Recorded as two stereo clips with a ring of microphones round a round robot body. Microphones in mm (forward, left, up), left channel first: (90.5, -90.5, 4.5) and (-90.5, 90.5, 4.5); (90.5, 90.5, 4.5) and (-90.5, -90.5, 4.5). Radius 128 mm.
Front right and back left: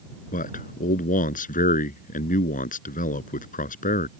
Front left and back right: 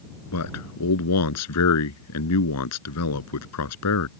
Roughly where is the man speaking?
Ahead.